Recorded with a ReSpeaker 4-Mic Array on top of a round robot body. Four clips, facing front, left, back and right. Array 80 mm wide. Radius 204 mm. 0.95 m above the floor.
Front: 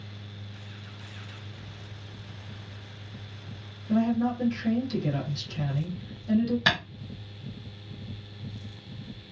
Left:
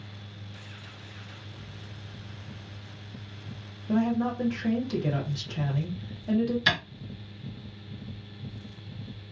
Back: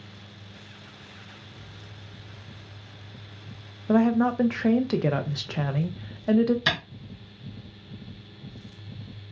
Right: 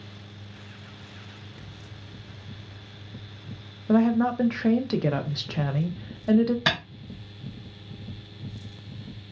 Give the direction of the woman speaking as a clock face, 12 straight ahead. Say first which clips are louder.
Right 5 dB, back 4 dB; 5 o'clock.